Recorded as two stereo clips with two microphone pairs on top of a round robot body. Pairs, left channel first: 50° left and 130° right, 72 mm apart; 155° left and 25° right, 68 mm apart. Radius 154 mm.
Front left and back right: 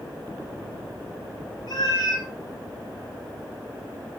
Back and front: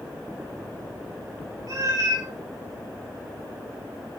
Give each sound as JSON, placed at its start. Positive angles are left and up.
{"t": 1.7, "sound": "a cat meowing", "azimuth_deg": 15, "distance_m": 6.0}